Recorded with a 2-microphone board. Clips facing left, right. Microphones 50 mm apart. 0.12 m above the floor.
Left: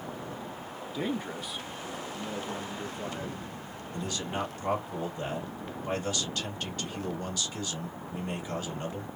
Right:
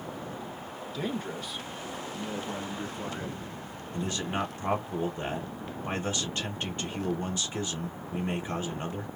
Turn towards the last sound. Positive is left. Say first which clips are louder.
# right 2 dB
turn(degrees=-25)  # may be behind; listen again after turning